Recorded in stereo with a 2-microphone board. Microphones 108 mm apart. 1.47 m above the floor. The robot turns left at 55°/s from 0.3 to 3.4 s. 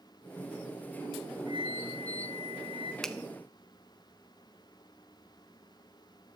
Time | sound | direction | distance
1.5 | a flute | 45° right | 0.6 m
3.0 | a finger snap | 5° left (ahead or behind) | 0.5 m